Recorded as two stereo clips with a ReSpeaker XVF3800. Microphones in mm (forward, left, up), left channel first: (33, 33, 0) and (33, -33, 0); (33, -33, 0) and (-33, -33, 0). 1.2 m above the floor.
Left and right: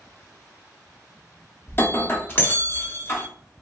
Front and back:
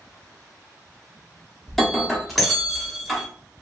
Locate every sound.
1.7 s breaking glass: 85° left, 0.8 m